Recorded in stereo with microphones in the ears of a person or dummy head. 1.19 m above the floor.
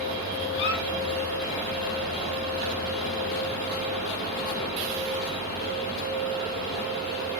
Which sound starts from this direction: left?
A squeak, at 0.5 s.